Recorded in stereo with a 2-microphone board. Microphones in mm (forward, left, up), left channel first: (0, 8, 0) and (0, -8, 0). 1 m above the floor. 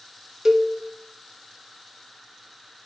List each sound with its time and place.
0.5 s a cowbell: 30° right (ahead or behind), 0.8 m